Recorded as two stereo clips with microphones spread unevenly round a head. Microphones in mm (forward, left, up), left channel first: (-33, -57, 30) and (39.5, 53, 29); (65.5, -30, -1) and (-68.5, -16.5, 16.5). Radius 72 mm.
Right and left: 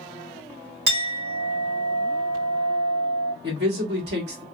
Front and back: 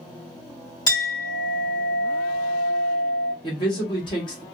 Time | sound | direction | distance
0.9 | a clink | 65° left | 1.8 m
3.4 | a man speaking | 55° left | 1.3 m